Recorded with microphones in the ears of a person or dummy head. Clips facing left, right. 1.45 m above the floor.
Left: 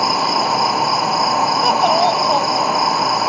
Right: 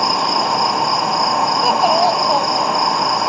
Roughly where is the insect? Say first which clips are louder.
Even; centre.